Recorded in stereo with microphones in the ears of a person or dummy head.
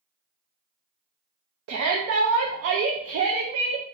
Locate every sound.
1.7 s a shout: 75° right (ahead or behind), 0.6 m